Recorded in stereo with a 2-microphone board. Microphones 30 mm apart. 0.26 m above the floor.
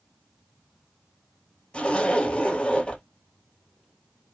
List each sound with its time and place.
1.7 s a zipper: 40° left (ahead or behind), 1.9 m